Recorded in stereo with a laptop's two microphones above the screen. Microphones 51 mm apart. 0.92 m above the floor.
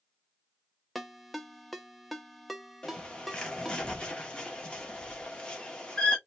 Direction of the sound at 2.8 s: 15° left (ahead or behind).